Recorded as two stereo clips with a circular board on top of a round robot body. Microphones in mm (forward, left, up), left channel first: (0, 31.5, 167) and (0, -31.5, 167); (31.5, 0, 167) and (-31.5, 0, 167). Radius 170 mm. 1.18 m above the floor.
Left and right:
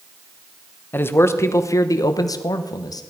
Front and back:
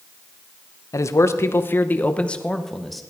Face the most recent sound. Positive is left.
turn(degrees=90)